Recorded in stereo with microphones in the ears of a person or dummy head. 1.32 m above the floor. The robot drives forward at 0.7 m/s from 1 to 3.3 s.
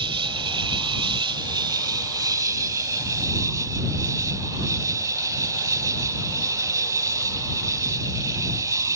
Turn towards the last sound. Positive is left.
turn(degrees=-15)  # may be behind; listen again after turning